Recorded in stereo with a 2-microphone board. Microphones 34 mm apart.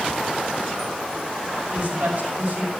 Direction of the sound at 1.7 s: 35° right (ahead or behind).